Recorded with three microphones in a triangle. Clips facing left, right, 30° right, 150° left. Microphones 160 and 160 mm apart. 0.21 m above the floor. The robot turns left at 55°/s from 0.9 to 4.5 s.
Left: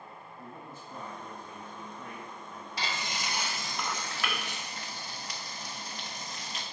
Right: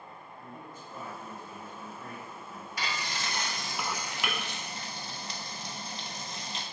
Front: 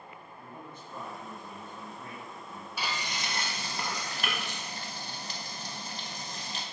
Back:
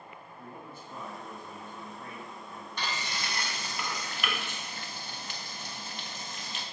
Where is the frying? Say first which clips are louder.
Even, front 1 dB; 50° left, 0.5 m; by 6.6 s 45° right, 0.5 m.